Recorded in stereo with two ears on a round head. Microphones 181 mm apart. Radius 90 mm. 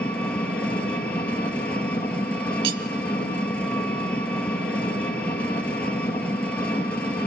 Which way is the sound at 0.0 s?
5° left (ahead or behind).